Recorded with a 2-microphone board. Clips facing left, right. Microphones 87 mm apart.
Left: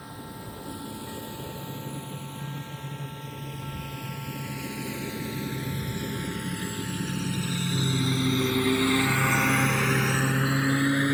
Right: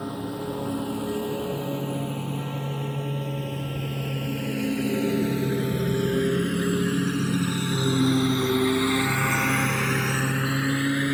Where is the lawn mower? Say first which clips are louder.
Right 10 dB; 75° right (ahead or behind); by 11.1 s 25° left (ahead or behind).